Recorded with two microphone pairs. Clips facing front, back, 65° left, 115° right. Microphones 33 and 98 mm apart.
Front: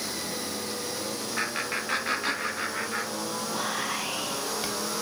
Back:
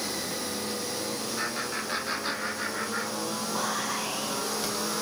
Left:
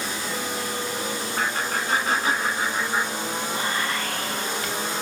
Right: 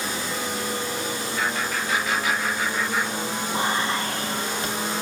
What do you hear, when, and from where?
1.4 s laughter: 25° left, 4.5 m; by 3.4 s straight ahead, 6 m
3.5 s whispering: 55° right, 4 m